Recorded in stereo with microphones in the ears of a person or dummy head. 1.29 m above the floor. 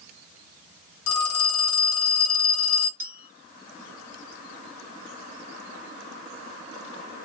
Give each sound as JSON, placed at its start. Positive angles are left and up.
{"t": 1.1, "sound": "a phone ringing", "side_deg": 80, "distance_m": 1.3}
{"t": 3.0, "sound": "a clink", "side_deg": -10, "distance_m": 0.9}